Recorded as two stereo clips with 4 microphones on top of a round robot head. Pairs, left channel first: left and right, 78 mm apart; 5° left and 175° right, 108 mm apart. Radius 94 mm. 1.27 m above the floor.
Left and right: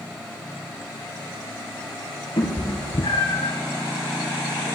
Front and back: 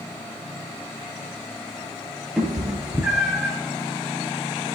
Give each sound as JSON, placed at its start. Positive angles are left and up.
{"t": 2.4, "sound": "a cat meowing", "azimuth_deg": 100, "distance_m": 2.5}